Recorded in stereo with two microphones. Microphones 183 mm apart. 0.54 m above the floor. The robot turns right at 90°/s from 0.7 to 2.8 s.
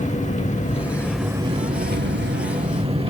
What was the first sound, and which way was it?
An engine running, 140° left.